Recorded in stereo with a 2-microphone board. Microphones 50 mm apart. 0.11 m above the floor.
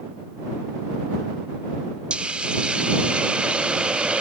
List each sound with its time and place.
2.1 s a hiss: 20° right (ahead or behind)